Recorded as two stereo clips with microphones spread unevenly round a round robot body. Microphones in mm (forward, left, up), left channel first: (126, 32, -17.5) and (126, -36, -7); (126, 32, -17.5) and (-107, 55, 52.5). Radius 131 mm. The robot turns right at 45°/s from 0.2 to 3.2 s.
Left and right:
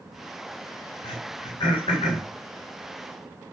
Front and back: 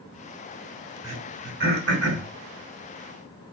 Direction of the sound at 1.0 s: 110° left.